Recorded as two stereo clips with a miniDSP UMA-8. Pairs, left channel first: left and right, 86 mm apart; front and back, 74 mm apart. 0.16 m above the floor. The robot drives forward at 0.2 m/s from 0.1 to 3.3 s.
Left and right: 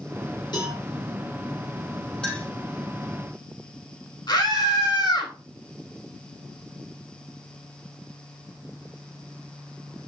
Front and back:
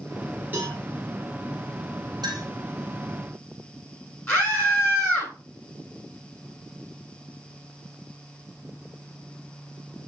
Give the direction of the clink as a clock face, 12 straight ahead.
6 o'clock.